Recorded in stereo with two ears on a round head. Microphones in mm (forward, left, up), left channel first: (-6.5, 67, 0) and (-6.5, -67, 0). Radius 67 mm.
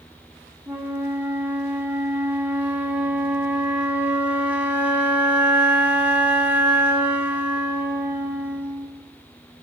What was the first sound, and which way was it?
A flute, 10° right (ahead or behind).